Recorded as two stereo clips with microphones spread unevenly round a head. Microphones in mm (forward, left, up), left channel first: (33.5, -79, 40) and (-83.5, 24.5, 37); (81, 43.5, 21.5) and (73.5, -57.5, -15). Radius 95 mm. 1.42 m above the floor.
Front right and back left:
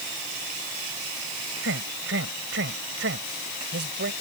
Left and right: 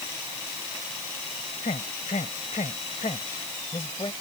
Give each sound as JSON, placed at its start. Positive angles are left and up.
{"t": 1.6, "sound": "a man speaking", "azimuth_deg": 125}